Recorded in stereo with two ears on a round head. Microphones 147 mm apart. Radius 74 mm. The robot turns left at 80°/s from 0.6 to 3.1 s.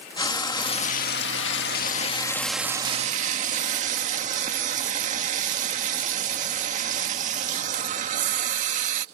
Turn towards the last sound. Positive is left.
turn(degrees=-45)